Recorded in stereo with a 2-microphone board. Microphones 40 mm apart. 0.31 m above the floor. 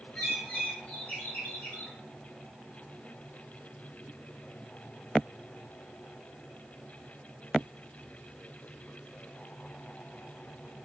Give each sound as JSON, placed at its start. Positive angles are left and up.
{"t": 0.1, "sound": "a bird", "side_deg": 40, "distance_m": 1.2}